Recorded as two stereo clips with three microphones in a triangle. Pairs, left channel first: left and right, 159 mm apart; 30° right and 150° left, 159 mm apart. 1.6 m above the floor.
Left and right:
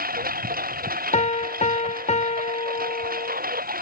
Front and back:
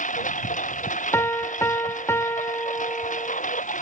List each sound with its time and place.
0.0 s a lawn mower: 65° right
1.1 s a piano: 45° left